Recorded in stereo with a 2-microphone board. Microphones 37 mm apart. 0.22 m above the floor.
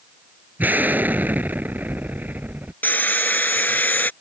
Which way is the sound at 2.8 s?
60° left (ahead or behind).